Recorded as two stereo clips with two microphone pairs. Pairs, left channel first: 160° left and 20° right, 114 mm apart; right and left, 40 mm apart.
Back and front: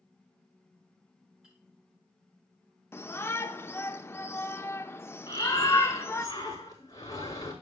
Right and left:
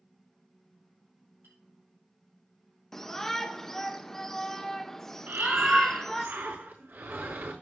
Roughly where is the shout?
Behind.